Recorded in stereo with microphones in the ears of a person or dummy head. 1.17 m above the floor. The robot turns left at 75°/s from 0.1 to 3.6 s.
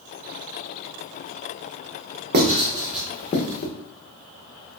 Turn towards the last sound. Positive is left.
turn(degrees=50)  # may be behind; listen again after turning